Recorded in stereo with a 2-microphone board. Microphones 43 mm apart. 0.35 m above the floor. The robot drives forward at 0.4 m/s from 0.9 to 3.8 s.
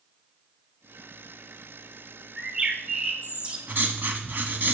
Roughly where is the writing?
Right.